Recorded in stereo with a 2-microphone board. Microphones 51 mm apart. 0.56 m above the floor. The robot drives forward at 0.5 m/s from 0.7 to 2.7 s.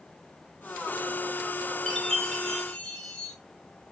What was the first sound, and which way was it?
A chime, 10° left (ahead or behind).